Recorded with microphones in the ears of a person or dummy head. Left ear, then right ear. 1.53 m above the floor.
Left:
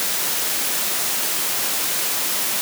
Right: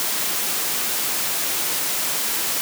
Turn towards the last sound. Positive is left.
No sound to turn to.